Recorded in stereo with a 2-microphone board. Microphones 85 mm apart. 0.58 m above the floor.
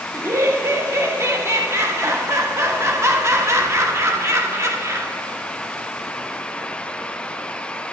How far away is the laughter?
About 1.0 m.